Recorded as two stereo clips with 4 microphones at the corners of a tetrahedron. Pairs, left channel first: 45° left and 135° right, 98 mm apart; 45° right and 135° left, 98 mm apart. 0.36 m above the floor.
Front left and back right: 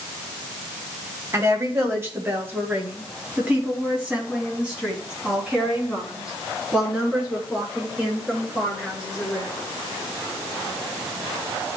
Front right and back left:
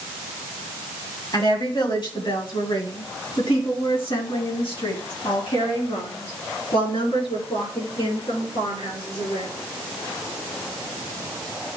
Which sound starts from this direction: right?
A woman speaking, at 1.3 s.